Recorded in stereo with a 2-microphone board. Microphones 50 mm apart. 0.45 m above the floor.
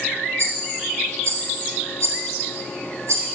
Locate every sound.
0.4 s a rattle: 70° right (ahead or behind), 2 m